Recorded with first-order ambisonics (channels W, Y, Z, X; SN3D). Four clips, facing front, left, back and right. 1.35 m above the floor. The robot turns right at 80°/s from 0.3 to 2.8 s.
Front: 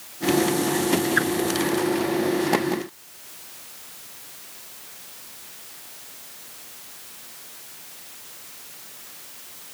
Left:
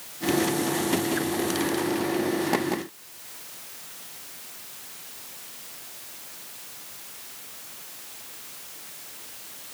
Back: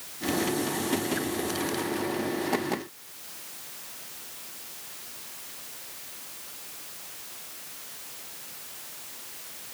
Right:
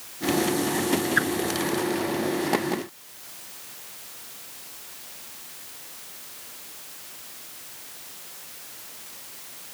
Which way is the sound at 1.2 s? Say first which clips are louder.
Right 5 dB, front 10 dB; 40° right.